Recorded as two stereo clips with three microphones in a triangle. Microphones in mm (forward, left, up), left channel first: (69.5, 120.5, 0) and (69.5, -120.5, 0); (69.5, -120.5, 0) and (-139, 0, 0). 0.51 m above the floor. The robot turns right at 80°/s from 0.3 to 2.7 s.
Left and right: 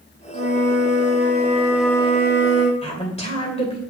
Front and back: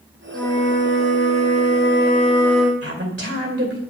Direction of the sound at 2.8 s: 150° left.